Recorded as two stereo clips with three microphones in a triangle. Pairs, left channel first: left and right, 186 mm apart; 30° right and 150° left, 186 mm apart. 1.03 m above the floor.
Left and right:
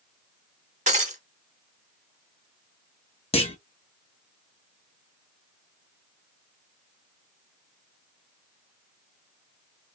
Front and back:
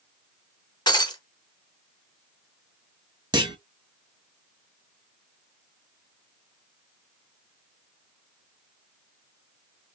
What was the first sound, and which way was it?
Breaking glass, 85° right.